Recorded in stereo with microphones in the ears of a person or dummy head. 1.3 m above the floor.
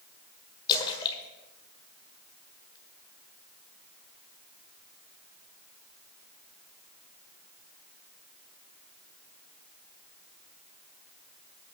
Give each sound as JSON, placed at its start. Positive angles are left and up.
{"t": 0.7, "sound": "a splash", "side_deg": 25, "distance_m": 1.6}